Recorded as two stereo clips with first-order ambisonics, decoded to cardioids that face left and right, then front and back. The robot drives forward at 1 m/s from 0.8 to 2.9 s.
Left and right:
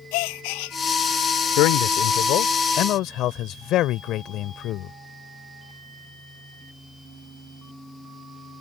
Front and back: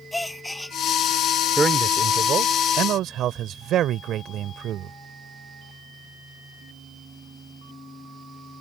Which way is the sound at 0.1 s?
85° left.